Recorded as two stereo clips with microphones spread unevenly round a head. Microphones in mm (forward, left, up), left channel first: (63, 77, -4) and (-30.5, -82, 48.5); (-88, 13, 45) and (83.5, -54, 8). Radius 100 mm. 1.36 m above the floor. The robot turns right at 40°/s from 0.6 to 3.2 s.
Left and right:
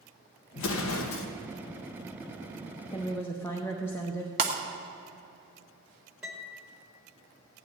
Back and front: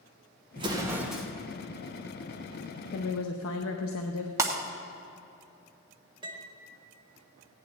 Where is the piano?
85° right, 1.2 m.